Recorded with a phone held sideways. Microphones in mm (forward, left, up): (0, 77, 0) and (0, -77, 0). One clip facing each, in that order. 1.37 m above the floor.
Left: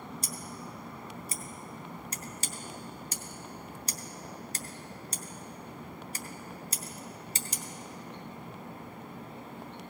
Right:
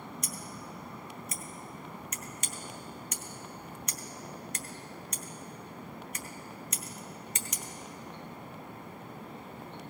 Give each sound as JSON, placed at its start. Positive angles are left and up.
{"t": 0.2, "sound": "scissors", "side_deg": 30, "distance_m": 0.6}